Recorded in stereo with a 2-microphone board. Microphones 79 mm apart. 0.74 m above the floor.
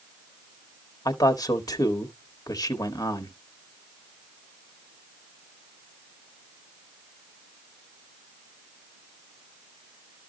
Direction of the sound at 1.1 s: 55° left (ahead or behind).